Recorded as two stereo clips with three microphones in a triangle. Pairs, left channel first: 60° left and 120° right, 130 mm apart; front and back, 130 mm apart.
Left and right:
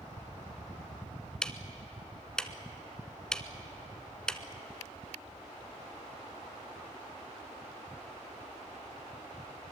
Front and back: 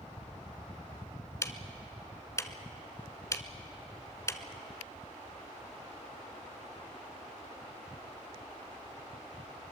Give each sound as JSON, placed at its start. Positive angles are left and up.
{"t": 1.4, "sound": "ticking", "azimuth_deg": -15, "distance_m": 0.9}